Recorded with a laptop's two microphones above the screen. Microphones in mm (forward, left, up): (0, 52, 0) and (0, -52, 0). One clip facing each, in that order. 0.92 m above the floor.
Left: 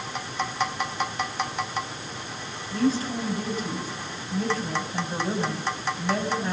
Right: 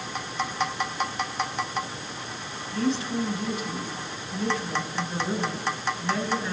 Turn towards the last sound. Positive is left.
turn(degrees=40)  # may be behind; listen again after turning